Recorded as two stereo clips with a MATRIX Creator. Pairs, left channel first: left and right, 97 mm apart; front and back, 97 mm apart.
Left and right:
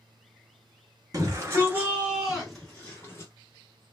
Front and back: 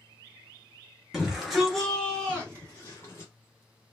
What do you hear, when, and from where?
1.1 s a shout: 100° right, 1.7 m; by 3.3 s 45° left, 1.6 m